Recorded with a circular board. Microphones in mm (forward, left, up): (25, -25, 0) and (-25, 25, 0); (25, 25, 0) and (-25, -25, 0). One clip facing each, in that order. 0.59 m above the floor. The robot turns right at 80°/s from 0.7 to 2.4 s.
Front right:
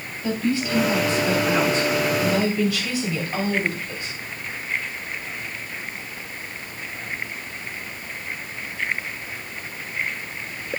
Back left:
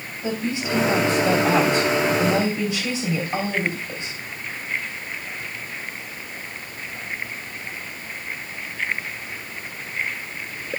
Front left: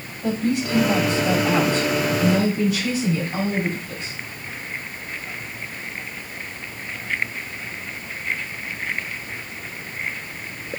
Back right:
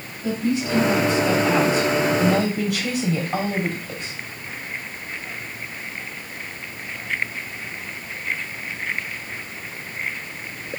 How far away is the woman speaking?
About 3.5 m.